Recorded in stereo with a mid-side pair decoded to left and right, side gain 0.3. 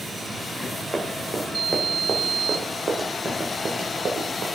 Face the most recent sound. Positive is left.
turn(degrees=-75)